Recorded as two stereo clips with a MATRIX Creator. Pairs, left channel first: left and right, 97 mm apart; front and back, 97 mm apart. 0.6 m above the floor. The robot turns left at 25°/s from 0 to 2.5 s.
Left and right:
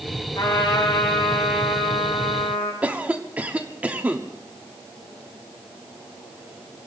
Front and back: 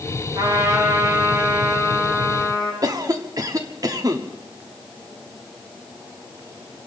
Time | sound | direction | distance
0.3 | a trumpet | 135° left | 5.5 m
2.8 | a cough | 155° right | 1.2 m